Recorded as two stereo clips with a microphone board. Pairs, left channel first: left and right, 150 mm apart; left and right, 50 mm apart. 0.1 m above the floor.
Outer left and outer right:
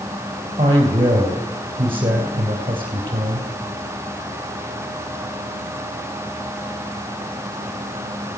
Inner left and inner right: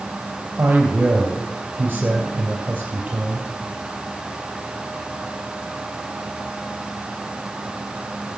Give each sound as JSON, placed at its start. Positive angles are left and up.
{"t": 0.6, "sound": "a man speaking", "side_deg": -35, "distance_m": 2.5}